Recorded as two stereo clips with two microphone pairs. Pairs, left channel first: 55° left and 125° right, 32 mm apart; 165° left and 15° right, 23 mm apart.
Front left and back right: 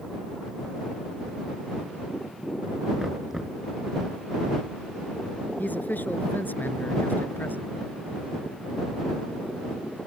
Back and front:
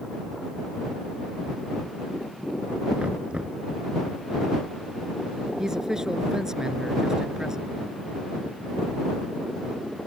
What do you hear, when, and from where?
3.0 s knocking: 50° right
5.6 s a man speaking: 45° left